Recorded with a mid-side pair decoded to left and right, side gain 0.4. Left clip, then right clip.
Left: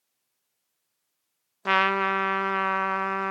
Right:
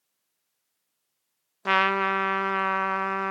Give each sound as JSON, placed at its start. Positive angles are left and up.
{"t": 1.6, "sound": "a trumpet", "azimuth_deg": 0}